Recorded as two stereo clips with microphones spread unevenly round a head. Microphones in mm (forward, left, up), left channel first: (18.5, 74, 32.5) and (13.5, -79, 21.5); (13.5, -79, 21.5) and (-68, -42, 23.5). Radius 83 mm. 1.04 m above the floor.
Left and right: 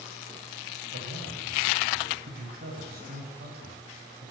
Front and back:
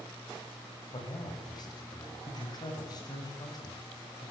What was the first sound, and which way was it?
A man speaking, 65° right.